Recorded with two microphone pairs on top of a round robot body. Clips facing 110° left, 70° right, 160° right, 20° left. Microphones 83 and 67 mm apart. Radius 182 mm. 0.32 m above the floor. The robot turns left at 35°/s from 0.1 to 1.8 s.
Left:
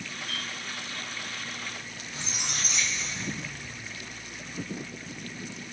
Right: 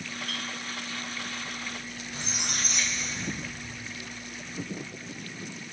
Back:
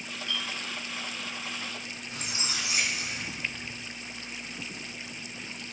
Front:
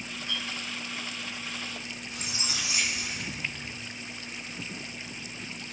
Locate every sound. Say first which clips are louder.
0.3 s a clink: right 1 dB, back 1 dB; 35° right, 3 m; by 2.0 s 90° right, 3 m
2.1 s a squeak: right 1 dB, back 2 dB; 110° right, 2.5 m